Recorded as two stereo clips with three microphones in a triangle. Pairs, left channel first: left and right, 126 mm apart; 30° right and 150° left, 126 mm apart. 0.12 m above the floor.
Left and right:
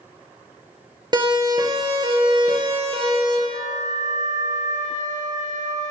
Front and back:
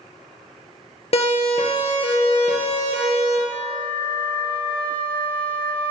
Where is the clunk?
I don't hear a clunk.